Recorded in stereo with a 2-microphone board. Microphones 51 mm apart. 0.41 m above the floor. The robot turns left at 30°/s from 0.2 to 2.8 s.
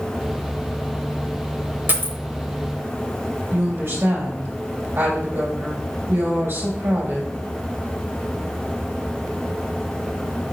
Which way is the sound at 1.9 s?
45° right (ahead or behind).